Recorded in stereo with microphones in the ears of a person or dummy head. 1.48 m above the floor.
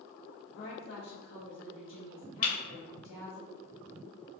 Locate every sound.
0.5 s a woman speaking: 55° left (ahead or behind), 1.4 m
2.4 s breaking glass: 50° left (ahead or behind), 1.3 m